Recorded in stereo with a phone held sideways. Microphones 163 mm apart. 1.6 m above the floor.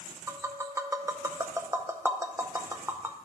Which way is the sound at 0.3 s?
15° right (ahead or behind).